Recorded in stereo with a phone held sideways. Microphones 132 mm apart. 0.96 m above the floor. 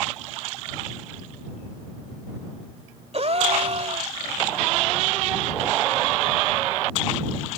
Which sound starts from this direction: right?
A gasp, at 3.1 s.